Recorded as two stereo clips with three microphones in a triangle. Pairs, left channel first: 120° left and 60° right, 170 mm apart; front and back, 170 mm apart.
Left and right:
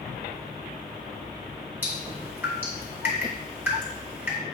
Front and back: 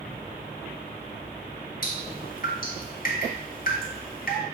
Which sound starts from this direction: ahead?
Dripping, at 1.8 s.